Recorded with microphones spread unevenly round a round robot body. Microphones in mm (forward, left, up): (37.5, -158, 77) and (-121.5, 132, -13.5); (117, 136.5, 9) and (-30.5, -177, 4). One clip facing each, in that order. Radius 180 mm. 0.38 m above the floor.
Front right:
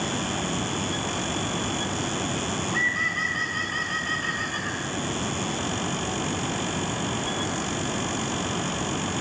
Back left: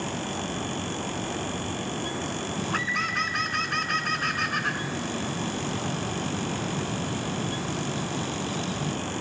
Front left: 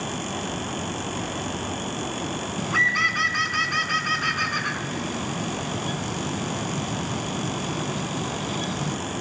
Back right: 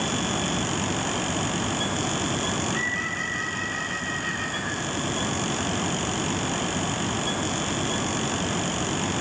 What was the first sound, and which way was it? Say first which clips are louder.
A bird: front right 1 dB, back right 1 dB; 80° left.